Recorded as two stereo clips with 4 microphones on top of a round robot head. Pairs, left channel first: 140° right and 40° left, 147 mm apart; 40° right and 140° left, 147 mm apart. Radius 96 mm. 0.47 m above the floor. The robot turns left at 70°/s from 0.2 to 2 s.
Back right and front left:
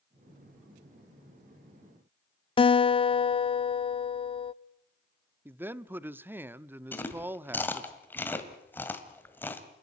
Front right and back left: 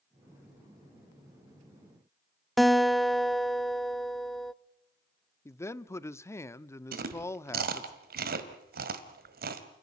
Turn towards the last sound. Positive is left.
turn(degrees=140)